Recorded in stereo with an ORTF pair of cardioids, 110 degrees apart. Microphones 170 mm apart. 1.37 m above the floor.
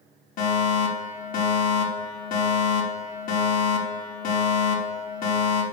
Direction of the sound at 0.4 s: 60° left.